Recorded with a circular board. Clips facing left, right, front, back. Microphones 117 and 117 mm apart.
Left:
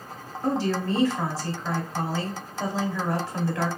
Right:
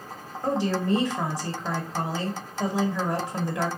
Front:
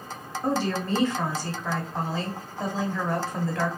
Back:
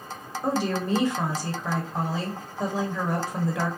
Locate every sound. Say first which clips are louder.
0.4 s a woman speaking: even, back 1 dB; 125° right, 0.9 m